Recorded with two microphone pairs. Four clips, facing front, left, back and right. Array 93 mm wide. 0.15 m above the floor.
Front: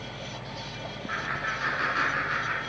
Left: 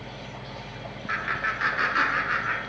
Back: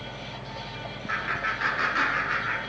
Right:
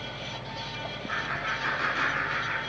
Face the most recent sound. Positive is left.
turn(degrees=90)